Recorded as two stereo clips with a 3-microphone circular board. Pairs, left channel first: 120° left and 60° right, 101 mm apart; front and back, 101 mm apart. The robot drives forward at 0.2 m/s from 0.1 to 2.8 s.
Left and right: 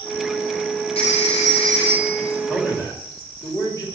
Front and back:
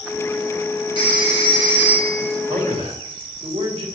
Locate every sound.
0.9 s a phone ringing: 140° left, 2 m; by 2.3 s 145° left, 2.5 m
2.5 s a man speaking: 175° left, 3 m